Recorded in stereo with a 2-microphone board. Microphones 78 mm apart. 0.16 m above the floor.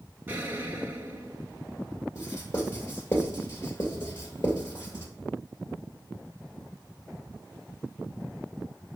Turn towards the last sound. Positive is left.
turn(degrees=35)  # may be behind; listen again after turning